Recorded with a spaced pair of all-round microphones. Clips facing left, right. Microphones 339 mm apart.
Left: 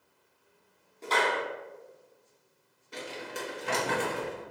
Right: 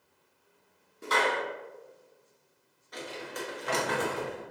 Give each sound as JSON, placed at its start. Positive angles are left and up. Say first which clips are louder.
{"t": 1.0, "sound": "a clap", "louder": "even", "side_deg": -20, "distance_m": 1.1}
{"t": 2.9, "sound": "crumpling", "louder": "even", "side_deg": 35, "distance_m": 0.9}